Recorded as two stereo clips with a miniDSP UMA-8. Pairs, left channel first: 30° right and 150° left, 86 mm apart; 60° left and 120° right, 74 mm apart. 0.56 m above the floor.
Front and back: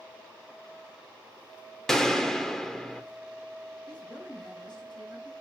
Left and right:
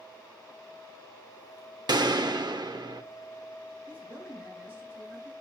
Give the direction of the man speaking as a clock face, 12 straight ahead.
2 o'clock.